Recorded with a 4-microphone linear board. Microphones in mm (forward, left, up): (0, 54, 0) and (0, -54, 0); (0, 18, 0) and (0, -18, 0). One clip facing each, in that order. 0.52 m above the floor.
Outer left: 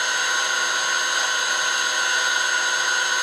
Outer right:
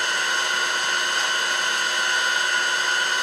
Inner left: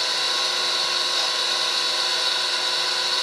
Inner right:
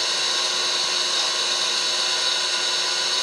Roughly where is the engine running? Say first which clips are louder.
Outer left 1 dB, even; centre.